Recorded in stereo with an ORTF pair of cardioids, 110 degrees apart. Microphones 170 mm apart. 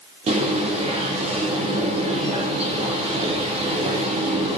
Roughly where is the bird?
Ahead right.